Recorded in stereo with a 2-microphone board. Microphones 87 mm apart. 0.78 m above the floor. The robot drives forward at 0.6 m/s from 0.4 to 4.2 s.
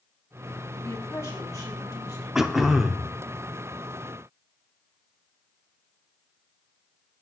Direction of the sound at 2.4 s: 5° right (ahead or behind).